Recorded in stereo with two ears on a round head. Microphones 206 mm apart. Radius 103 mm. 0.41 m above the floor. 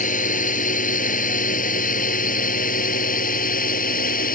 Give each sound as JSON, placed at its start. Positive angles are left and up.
{"t": 0.0, "sound": "a drone", "side_deg": 35}